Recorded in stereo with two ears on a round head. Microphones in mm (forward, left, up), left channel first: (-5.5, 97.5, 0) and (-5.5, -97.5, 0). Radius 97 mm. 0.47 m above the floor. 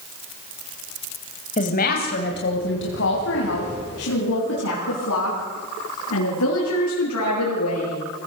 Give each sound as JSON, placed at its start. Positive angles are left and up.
{"t": 1.6, "sound": "a woman speaking", "side_deg": 35, "distance_m": 2.0}